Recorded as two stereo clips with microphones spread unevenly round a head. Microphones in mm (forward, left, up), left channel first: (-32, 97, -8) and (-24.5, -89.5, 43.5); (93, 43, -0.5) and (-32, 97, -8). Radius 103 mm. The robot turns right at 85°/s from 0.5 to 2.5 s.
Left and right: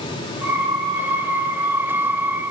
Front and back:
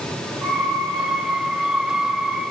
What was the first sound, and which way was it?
Only background noise.